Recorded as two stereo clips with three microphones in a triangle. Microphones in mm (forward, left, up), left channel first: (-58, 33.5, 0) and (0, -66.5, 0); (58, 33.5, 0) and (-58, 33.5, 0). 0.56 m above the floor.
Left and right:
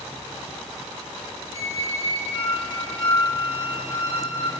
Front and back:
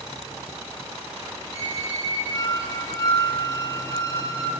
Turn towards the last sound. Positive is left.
turn(degrees=-25)